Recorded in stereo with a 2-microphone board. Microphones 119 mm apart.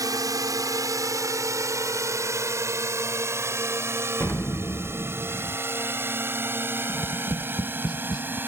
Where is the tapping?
30° left (ahead or behind).